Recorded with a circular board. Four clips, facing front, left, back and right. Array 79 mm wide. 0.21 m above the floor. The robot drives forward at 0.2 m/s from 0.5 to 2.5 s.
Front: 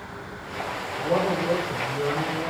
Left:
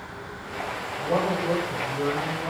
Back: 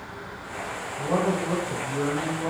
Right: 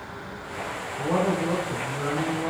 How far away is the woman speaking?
About 1.6 m.